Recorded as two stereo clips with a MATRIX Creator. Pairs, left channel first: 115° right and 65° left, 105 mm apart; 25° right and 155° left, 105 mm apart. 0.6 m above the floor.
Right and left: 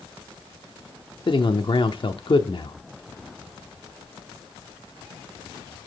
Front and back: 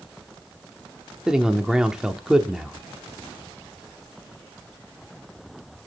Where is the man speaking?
120° right, 1.0 m.